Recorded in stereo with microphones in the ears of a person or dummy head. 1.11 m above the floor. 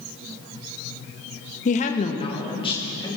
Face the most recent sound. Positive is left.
turn(degrees=20)  # may be behind; listen again after turning